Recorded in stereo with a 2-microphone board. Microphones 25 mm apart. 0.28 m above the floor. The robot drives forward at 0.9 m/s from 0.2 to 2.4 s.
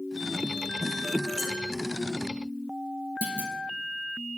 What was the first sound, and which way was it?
Dishes clattering, 20° right (ahead or behind).